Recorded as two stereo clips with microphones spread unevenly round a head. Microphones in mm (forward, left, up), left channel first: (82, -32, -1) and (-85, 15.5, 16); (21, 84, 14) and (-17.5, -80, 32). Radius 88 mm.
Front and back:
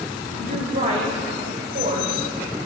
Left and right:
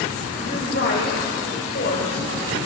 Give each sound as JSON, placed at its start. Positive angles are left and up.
{"t": 0.4, "sound": "a woman speaking", "azimuth_deg": 115, "distance_m": 5.0}